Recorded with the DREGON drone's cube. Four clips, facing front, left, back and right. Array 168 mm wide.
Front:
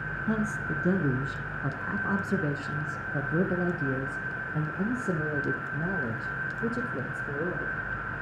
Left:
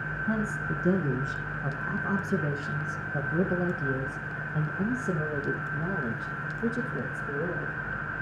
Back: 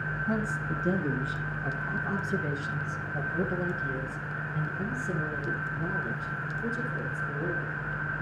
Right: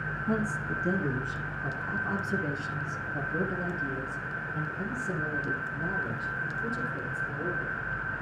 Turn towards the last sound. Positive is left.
turn(degrees=35)